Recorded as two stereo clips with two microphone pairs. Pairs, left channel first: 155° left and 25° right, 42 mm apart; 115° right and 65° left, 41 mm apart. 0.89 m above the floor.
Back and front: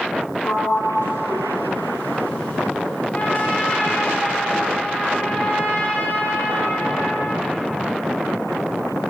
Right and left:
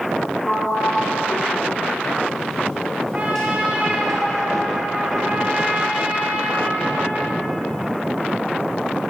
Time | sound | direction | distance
0.4 | a sliding door | 170° left | 3.5 m
3.1 | a trumpet | 115° left | 1.6 m